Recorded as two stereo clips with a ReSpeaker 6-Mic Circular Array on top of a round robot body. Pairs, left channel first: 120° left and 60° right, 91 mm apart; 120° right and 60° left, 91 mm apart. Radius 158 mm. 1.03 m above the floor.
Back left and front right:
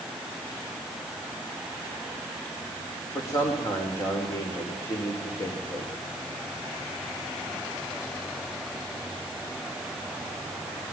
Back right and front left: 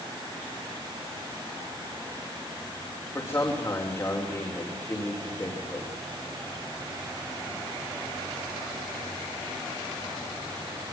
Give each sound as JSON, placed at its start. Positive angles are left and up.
{"t": 3.1, "sound": "a man speaking", "azimuth_deg": 175, "distance_m": 5.5}